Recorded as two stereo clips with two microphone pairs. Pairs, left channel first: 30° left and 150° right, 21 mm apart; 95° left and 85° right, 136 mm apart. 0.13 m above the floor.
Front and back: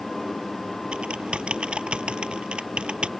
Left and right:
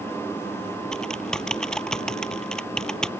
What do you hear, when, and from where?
0.9 s typing on a keyboard: straight behind